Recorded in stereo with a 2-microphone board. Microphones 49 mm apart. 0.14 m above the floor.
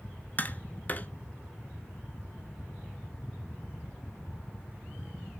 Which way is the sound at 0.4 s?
35° left (ahead or behind).